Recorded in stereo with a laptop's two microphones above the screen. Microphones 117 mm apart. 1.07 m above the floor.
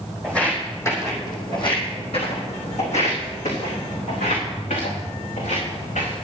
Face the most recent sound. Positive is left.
turn(degrees=75)  # may be behind; listen again after turning